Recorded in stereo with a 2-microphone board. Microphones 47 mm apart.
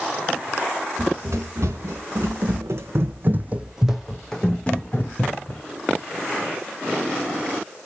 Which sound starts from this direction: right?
Running footsteps, at 1.0 s.